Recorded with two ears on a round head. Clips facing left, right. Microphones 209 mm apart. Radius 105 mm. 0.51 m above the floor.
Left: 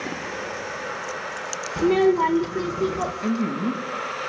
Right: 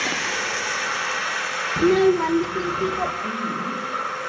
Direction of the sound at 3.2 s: 45° left (ahead or behind).